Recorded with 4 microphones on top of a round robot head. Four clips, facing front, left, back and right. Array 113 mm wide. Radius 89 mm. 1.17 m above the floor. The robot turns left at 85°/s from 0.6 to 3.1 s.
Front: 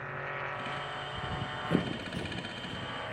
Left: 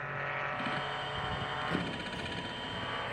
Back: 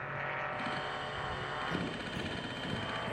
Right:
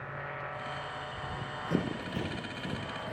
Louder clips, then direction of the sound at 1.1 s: Left 3 dB, even; 30° left.